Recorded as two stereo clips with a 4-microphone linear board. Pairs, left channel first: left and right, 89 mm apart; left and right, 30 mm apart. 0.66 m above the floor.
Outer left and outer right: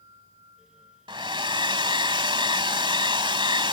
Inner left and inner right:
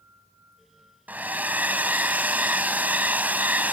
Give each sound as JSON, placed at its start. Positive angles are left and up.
{"t": 1.1, "sound": "a hair dryer", "side_deg": -70}